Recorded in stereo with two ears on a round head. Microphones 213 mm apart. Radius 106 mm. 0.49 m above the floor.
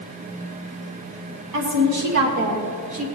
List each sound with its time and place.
1.5 s a woman speaking: 75° right (ahead or behind), 4 m; by 3.0 s 55° right (ahead or behind), 3.5 m